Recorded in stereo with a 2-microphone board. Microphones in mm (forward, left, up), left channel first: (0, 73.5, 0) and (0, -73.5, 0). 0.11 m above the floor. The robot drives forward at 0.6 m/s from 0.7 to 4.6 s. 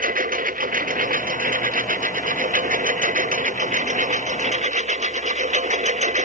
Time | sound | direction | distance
0.0 | a lawn mower | 85° right | ?